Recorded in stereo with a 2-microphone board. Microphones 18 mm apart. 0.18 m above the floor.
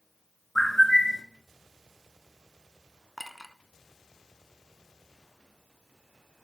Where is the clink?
Centre (ahead or behind), 0.9 m.